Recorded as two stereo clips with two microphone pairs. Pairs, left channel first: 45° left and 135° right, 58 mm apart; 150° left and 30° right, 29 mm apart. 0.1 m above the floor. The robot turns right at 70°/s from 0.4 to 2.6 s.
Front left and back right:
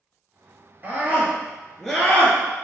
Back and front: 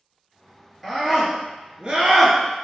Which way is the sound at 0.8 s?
110° right.